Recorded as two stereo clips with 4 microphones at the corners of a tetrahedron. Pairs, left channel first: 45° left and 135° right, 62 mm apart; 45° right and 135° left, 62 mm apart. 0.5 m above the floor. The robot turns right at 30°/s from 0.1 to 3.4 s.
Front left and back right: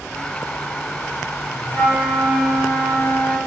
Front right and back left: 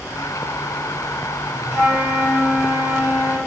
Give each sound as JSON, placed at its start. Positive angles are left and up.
{"t": 1.7, "sound": "a flute", "azimuth_deg": 110, "distance_m": 1.6}